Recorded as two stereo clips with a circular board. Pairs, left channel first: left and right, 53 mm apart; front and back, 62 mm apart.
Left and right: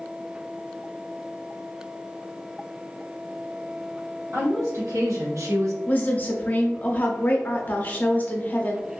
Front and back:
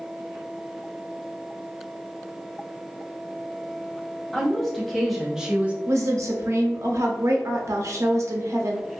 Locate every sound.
4.3 s a woman speaking: 80° right, 1.3 m; by 5.8 s 115° right, 0.6 m
5.9 s a woman speaking: 145° left, 0.6 m